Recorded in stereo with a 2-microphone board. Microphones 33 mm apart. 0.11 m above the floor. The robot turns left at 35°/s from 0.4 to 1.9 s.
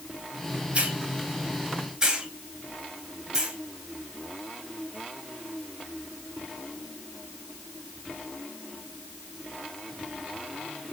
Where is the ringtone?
No ringtone in this recording.